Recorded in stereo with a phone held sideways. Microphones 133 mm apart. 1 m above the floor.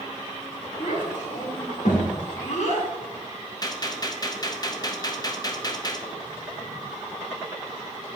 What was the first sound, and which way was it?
A child speaking, 80° left.